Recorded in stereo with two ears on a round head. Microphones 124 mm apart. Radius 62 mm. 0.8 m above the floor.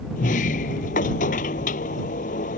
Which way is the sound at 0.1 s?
65° left (ahead or behind).